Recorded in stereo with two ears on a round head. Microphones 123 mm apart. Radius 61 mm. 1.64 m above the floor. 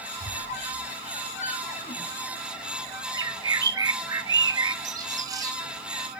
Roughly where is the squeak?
Left.